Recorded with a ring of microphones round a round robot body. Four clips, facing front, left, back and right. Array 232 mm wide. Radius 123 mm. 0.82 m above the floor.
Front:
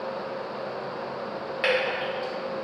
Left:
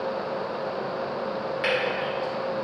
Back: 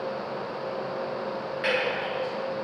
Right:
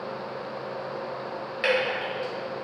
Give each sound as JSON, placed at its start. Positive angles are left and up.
{"t": 1.6, "sound": "dripping", "azimuth_deg": -10, "distance_m": 1.8}